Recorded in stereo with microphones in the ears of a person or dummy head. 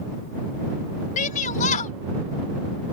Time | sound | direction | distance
1.2 | a shout | 40° left (ahead or behind) | ?